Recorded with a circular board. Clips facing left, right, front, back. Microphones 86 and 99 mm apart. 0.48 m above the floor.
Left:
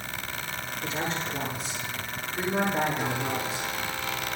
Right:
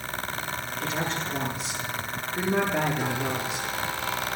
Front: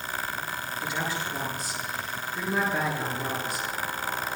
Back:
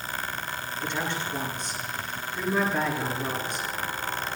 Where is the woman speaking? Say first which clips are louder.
Right 1 dB, back 1 dB; 85° right, 9 m.